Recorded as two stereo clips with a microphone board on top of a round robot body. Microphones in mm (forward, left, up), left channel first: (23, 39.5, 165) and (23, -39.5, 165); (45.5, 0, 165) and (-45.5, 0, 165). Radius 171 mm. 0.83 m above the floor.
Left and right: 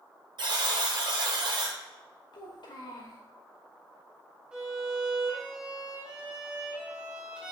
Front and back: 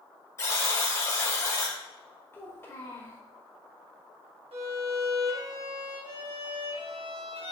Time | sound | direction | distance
0.4 | a buzzer | 60° right | 1.4 m
2.3 | a child speaking | 65° left | 2.5 m
4.5 | a violin | 170° right | 2.0 m